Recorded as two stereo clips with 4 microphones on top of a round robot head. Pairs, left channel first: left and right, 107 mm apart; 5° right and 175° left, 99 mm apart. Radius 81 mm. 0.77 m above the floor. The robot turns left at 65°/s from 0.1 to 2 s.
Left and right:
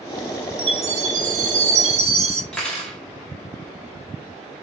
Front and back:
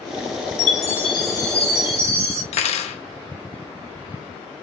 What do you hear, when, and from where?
0.6 s a chime: 30° right, 0.7 m; by 2.4 s 120° right, 0.7 m
2.5 s cutlery clinking: 5° left, 0.5 m